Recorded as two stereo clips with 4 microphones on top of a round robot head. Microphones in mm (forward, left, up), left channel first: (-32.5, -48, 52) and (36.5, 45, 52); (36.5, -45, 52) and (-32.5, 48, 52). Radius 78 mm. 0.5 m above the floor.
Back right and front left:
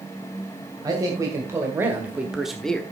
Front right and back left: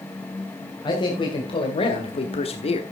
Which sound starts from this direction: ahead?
A man speaking, at 0.8 s.